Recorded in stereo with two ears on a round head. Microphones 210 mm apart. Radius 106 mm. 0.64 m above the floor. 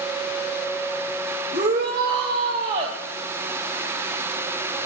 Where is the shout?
25° right (ahead or behind), 3 m.